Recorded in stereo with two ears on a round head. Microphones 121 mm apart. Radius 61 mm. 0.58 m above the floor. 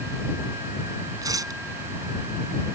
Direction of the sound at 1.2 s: 25° right (ahead or behind).